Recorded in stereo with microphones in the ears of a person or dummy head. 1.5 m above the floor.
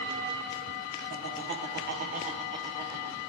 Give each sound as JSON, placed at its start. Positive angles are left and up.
{"t": 1.1, "sound": "laughter", "side_deg": -75, "distance_m": 1.3}